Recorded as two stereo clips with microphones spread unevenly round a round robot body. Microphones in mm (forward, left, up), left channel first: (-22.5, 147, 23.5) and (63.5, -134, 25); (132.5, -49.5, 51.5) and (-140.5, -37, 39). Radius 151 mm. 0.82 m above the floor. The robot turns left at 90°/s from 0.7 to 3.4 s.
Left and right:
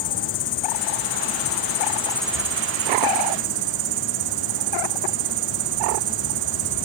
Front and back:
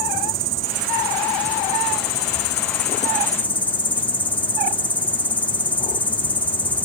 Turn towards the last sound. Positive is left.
turn(degrees=-85)